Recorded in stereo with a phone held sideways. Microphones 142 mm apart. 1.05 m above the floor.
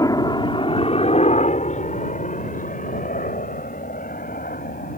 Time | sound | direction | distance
0.0 | a helicopter | 25° left (ahead or behind) | ?